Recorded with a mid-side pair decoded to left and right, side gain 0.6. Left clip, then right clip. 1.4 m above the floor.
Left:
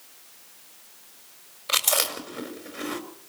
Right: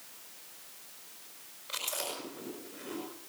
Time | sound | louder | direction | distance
1.7 | chewing | left 13 dB | 70° left | 5 m